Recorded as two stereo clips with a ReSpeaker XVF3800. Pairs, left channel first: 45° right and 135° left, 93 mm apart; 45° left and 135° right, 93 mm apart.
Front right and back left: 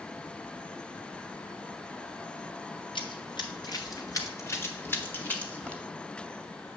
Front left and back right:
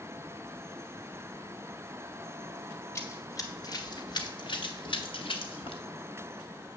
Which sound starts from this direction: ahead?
Running footsteps, at 3.0 s.